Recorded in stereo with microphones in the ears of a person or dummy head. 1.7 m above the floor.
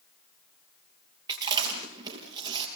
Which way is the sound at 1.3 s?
20° right (ahead or behind).